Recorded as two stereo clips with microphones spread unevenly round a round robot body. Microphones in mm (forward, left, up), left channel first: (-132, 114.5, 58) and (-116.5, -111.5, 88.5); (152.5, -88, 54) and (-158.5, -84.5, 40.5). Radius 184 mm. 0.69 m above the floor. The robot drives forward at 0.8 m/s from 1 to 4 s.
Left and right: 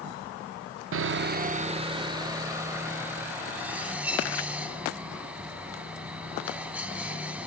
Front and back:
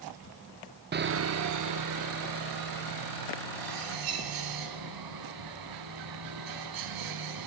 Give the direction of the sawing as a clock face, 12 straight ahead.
4 o'clock.